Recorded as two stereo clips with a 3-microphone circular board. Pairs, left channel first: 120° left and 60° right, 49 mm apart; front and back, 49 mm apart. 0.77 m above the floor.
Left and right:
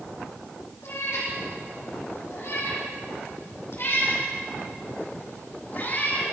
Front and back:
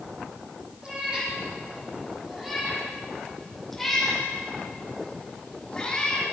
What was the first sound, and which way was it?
A cat meowing, 115° left.